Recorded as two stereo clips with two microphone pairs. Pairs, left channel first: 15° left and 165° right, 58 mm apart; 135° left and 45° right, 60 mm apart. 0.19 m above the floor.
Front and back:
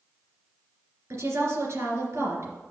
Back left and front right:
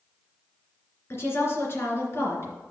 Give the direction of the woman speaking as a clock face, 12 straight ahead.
6 o'clock.